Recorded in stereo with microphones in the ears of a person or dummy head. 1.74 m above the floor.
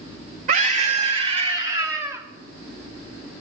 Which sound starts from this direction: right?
A scream, at 0.5 s.